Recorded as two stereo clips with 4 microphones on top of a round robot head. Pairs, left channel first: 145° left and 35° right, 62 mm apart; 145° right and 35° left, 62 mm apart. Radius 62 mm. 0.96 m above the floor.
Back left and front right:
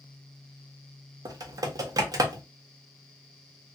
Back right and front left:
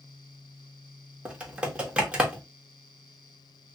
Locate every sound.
1.2 s typing on a keyboard: 35° right, 1.0 m